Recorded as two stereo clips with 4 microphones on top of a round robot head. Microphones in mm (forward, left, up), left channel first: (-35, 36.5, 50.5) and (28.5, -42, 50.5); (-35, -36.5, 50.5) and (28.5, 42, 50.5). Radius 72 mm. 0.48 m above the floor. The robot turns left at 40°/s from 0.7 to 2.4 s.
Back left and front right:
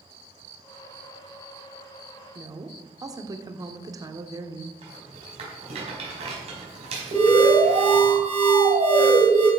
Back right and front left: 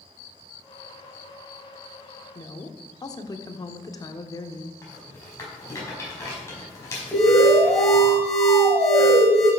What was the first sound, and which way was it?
A woman speaking, 90° right.